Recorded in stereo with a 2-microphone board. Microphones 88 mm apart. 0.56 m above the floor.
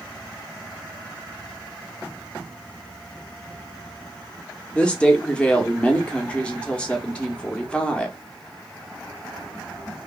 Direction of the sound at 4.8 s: 10° left (ahead or behind).